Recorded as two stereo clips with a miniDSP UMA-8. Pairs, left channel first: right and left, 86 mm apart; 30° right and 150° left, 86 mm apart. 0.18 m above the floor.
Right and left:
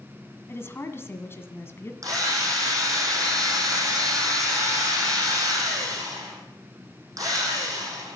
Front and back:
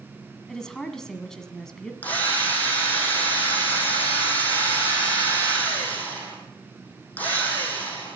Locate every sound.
0.5 s a woman speaking: 105° right, 1.5 m
2.0 s a drill: 40° left, 5.5 m